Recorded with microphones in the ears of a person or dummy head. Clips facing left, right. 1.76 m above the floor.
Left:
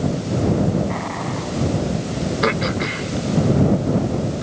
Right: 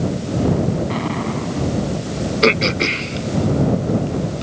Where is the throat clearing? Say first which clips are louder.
Right 6 dB; 35° right (ahead or behind).